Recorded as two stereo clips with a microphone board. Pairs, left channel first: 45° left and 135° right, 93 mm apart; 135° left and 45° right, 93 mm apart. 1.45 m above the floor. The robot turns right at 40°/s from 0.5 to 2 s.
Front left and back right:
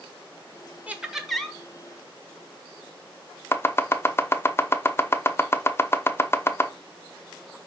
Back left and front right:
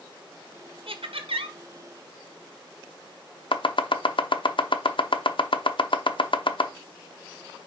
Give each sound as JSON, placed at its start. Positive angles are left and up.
{"t": 0.9, "sound": "laughter", "azimuth_deg": -60, "distance_m": 1.5}
{"t": 3.5, "sound": "chopping", "azimuth_deg": 110, "distance_m": 0.7}